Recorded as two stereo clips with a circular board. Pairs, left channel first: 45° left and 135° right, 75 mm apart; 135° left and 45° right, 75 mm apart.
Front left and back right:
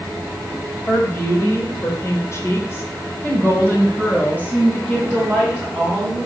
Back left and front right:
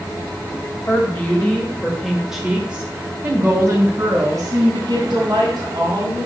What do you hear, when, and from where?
0.9 s a woman speaking: 85° left, 2.0 m; by 6.3 s 30° right, 3.5 m